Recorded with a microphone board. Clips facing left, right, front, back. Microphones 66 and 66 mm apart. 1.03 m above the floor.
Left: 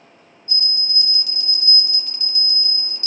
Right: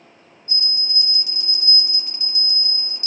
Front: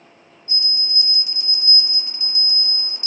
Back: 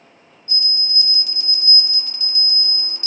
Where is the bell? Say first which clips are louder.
Left 1 dB, back 1 dB; 45° right, 0.6 m.